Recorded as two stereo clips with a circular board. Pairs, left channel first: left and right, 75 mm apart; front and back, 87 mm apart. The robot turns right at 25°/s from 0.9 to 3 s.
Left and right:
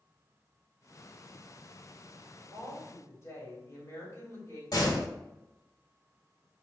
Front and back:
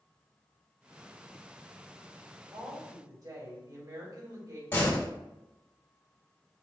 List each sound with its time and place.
2.5 s a woman speaking: 125° left, 2.5 m; by 4.6 s 140° left, 2.5 m
4.7 s a door slam: 65° left, 1.7 m